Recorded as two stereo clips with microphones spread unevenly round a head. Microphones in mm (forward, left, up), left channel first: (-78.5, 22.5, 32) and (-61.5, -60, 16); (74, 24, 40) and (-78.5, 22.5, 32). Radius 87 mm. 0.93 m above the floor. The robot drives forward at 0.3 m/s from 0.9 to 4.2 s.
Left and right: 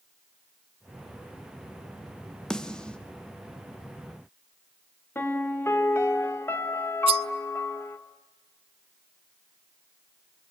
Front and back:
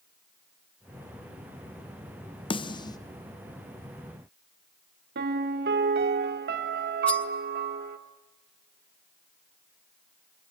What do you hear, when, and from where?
2.5 s a snare drum: 5° left, 1.0 m; by 3.0 s 10° left, 0.9 m
5.2 s a piano: 165° left, 1.9 m
7.1 s cutlery clinking: 80° right, 0.6 m